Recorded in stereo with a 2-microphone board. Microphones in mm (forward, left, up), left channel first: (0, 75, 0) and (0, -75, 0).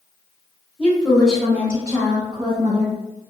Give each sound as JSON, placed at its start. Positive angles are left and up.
{"t": 0.8, "sound": "a woman speaking", "side_deg": 10, "distance_m": 1.1}